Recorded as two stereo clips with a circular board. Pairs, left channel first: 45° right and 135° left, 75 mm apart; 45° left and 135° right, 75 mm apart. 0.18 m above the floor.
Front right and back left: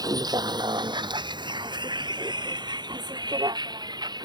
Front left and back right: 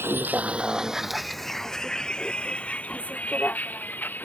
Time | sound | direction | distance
0.0 | a vehicle | 165° left | ?